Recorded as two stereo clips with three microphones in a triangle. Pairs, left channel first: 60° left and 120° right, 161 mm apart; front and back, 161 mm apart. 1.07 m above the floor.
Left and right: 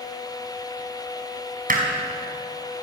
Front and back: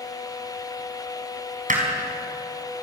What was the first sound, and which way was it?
Hammering, 145° right.